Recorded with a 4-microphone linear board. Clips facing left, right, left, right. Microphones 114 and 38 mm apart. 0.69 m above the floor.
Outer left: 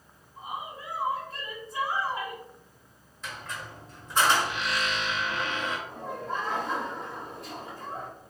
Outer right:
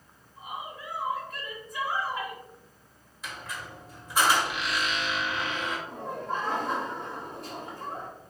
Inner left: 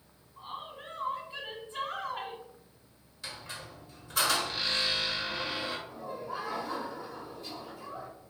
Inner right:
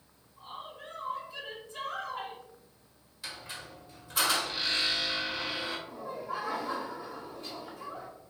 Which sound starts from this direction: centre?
A squeak, at 3.2 s.